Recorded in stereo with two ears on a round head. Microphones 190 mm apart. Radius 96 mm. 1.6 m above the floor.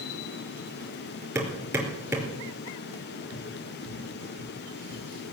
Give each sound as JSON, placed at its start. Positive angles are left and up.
{"t": 1.4, "sound": "hammering", "side_deg": -15, "distance_m": 4.5}
{"t": 3.3, "sound": "tapping", "side_deg": -15, "distance_m": 7.5}